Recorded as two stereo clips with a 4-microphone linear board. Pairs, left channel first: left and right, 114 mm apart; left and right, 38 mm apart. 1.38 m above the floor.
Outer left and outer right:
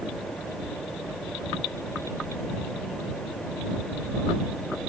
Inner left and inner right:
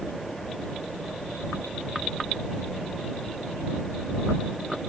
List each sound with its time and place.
Only background noise.